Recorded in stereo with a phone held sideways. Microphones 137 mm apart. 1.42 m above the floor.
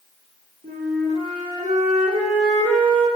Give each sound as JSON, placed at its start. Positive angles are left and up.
{"t": 0.6, "sound": "a flute", "side_deg": -75, "distance_m": 1.4}